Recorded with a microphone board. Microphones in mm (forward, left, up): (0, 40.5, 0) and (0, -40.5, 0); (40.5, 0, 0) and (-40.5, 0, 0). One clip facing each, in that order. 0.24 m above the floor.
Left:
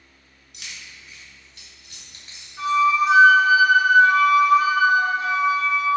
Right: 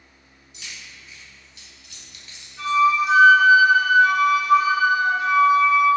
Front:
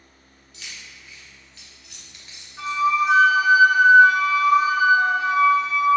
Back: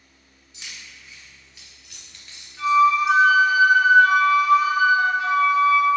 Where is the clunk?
I don't hear a clunk.